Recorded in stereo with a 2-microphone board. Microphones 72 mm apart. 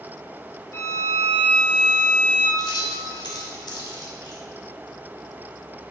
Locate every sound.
0.7 s a violin: 40° left (ahead or behind), 1.9 m
2.6 s keys jangling: 80° left, 2 m